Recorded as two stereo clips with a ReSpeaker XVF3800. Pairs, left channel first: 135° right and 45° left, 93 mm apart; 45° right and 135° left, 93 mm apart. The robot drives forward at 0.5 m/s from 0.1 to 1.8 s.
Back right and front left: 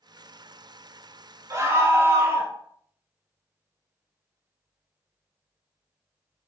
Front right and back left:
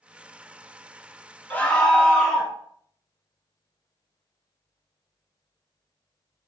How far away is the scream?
About 0.6 m.